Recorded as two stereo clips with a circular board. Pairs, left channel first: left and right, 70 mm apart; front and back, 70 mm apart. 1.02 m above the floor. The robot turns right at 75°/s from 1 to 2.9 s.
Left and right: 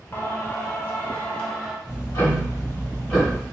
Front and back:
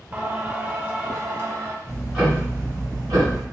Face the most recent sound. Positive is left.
turn(degrees=160)